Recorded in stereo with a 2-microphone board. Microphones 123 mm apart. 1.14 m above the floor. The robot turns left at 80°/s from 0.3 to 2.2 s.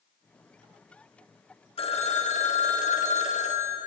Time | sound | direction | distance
1.8 | a phone ringing | 130° left | 0.8 m